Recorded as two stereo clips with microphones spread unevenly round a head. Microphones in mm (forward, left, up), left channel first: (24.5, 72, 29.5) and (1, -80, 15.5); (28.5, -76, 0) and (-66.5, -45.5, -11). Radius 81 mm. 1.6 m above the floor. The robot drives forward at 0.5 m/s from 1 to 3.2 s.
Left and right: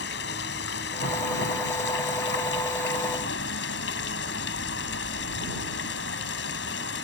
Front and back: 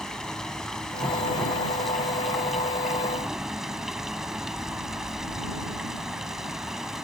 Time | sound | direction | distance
0.0 | running water | 65° left | ?